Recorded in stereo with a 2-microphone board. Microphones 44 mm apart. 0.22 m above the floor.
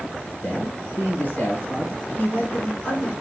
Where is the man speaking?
25° left (ahead or behind), 1.7 m; by 3.1 s 30° left (ahead or behind), 2.5 m.